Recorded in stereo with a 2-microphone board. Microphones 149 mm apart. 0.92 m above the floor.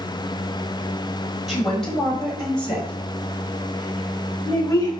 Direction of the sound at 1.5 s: Centre (ahead or behind).